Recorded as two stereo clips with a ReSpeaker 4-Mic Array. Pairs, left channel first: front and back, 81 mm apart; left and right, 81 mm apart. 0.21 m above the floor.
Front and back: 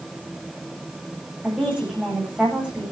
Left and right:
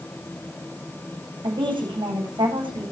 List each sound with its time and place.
1.4 s a woman speaking: 105° right, 10 m